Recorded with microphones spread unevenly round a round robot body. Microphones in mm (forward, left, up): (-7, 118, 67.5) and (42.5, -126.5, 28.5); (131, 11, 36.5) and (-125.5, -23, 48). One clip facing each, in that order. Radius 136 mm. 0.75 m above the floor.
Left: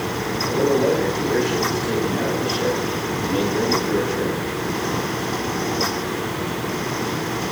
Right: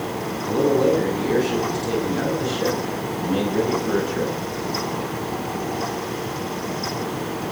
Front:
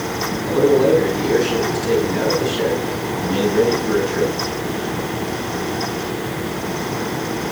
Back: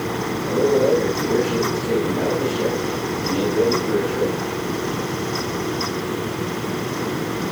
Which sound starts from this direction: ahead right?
A man speaking, at 0.5 s.